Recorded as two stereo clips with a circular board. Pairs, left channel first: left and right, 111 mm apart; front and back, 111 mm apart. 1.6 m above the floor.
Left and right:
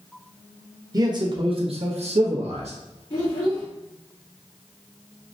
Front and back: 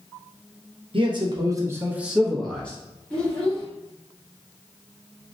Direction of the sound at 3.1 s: 85° left.